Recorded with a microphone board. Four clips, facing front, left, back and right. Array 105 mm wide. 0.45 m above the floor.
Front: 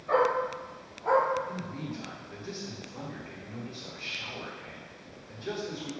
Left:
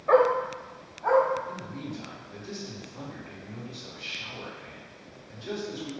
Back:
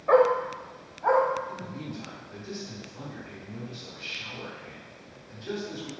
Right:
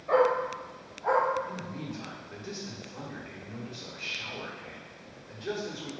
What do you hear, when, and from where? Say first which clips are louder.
0.1 s a dog barking: left 3 dB, back 5 dB; 140° left, 0.7 m; by 1.2 s 170° left, 1.3 m
1.5 s a man speaking: left 1 dB, even; 70° right, 1.9 m